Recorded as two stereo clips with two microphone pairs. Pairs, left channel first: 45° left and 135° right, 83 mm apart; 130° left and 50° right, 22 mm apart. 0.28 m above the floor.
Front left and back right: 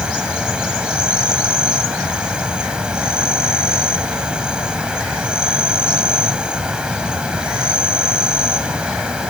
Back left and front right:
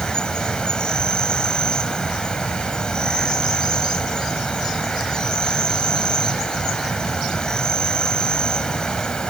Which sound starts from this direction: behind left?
An insect, at 0.0 s.